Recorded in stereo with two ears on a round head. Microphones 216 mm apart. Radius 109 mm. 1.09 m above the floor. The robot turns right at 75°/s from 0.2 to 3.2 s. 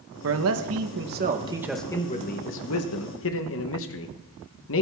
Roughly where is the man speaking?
Behind right.